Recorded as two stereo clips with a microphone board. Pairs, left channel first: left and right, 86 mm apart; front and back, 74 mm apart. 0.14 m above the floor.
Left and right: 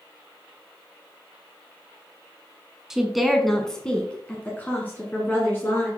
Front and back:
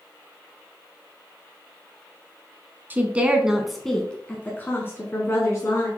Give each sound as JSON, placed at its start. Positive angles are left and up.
{"t": 2.9, "sound": "a woman speaking", "azimuth_deg": -165, "distance_m": 1.1}